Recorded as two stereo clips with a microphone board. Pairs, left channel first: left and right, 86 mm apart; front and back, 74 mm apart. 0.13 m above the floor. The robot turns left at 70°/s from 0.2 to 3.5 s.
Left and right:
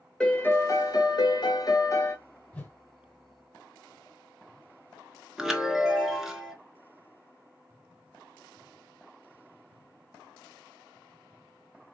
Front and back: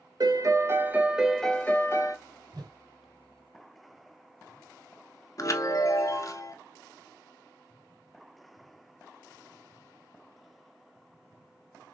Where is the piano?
170° left, 0.6 m; by 2.2 s 30° left, 0.6 m.